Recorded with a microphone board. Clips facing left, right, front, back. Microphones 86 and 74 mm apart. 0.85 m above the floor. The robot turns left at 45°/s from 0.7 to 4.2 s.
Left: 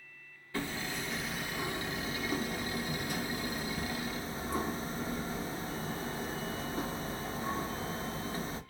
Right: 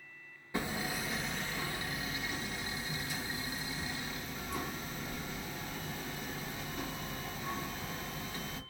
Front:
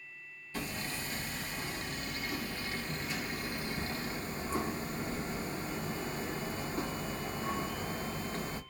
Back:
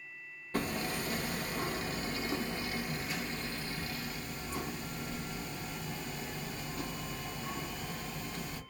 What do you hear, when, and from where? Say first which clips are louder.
0.5 s hammering: right 1 dB, back 5 dB; 160° right, 0.5 m; by 8.6 s 45° left, 0.5 m